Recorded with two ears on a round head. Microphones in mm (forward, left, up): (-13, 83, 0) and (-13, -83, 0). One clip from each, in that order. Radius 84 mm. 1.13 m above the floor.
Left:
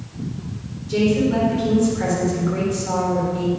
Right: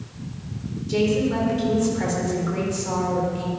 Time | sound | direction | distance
0.9 | a woman speaking | 20° right (ahead or behind) | 4 m